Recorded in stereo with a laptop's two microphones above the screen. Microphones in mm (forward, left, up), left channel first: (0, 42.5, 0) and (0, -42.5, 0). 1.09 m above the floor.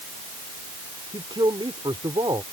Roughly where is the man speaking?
Right.